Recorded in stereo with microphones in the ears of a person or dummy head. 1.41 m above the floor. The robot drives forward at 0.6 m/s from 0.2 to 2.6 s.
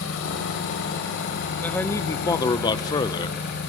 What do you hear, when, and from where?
0.0 s an engine running: 70° left (ahead or behind), 3 m; by 3.7 s 50° left (ahead or behind), 3.5 m
1.6 s a man speaking: 20° left (ahead or behind), 1.5 m; by 3.4 s 30° left (ahead or behind), 1.0 m